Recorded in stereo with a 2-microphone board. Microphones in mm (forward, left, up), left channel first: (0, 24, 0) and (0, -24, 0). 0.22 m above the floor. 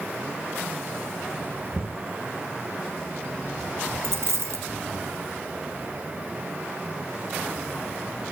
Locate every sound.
1.7 s knocking: 60° right (ahead or behind), 2 m
4.0 s a dropped coin: 70° right (ahead or behind), 1.2 m